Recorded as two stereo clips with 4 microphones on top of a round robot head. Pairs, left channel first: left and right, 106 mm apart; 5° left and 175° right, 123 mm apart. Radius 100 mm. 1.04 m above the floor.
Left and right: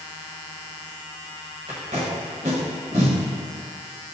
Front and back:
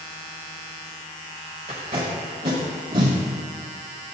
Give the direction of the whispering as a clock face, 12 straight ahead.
No whispering in this recording.